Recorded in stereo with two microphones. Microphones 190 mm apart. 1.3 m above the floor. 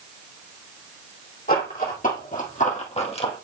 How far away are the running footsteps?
About 3 m.